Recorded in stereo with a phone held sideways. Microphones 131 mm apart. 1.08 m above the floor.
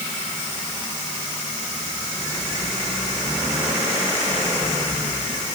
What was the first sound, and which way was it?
Only background noise.